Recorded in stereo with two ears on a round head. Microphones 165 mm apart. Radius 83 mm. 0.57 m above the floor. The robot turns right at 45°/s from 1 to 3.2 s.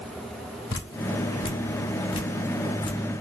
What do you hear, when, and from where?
0.7 s dripping: 20° left (ahead or behind), 1.3 m; by 3.0 s 25° left (ahead or behind), 1.3 m